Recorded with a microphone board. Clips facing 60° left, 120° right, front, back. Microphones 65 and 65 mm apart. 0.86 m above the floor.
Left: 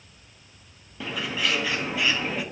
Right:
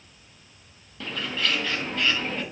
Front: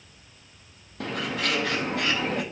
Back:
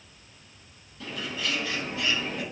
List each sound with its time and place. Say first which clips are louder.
1.0 s a bird: left 1 dB, front 5 dB; 20° right, 0.8 m